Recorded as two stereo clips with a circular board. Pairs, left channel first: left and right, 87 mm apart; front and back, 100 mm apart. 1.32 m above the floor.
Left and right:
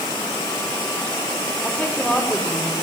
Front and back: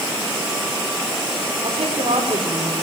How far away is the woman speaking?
About 5 m.